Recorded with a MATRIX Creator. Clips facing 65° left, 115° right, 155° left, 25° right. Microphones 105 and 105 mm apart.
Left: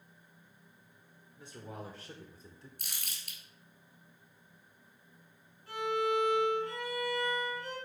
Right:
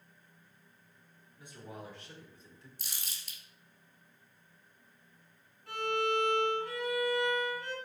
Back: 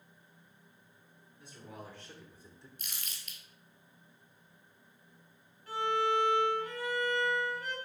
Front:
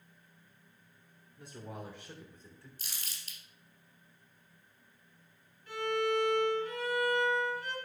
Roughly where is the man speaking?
Ahead.